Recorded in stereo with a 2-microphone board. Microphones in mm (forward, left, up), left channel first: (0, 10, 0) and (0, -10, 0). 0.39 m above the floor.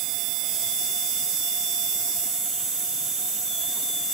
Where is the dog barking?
No dog barking in this recording.